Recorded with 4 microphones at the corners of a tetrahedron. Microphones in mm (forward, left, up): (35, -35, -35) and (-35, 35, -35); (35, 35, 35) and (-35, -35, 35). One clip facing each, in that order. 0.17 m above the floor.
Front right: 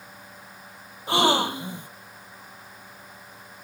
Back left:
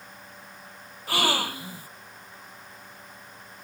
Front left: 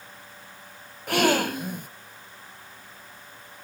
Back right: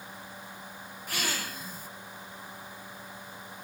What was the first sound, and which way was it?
A gasp, 20° left.